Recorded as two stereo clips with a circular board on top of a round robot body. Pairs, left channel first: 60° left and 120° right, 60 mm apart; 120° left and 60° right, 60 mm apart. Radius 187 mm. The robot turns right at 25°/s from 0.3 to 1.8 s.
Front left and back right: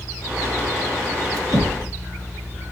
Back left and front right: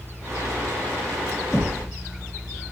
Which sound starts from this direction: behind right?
Knocking, at 1.5 s.